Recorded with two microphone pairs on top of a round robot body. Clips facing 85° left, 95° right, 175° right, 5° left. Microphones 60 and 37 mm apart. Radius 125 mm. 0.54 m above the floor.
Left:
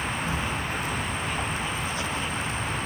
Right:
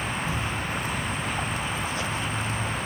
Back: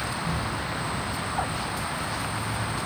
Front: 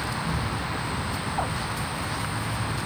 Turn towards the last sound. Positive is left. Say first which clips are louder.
# even, even
turn(degrees=-170)